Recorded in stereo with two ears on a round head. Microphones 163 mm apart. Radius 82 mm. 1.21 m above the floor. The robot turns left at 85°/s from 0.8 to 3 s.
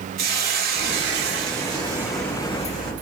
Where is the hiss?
65° right, 1.2 m; by 2.9 s 115° left, 1.2 m.